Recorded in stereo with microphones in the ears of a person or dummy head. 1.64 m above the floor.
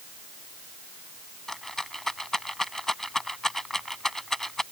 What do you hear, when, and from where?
1.5 s a rattle: 5° right (ahead or behind)